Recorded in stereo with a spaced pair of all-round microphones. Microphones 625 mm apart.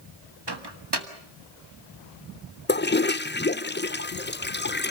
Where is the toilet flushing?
20° left (ahead or behind), 0.6 m.